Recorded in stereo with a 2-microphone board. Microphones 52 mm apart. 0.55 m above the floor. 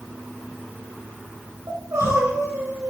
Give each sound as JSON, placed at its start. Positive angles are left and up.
{"t": 1.7, "sound": "crying", "side_deg": -70, "distance_m": 9.0}